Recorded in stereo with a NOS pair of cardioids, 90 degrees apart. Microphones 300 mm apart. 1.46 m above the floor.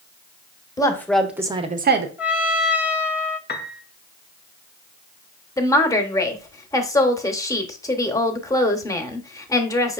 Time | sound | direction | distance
0.8 | a woman speaking | 15° left | 1.1 m
2.2 | a trumpet | 5° right | 0.7 m
3.5 | a piano | 35° left | 0.7 m
5.6 | a woman speaking | 10° left | 0.9 m